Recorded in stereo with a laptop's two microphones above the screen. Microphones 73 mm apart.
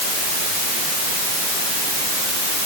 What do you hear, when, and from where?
Only background noise.